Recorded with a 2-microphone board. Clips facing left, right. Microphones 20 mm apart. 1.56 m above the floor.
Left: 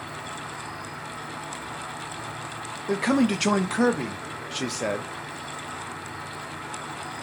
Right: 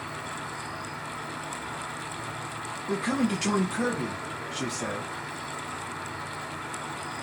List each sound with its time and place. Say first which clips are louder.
0.0 s an insect: even; 20° right (ahead or behind), 1.5 m
2.9 s a man speaking: left 5 dB; 75° left (ahead or behind), 0.7 m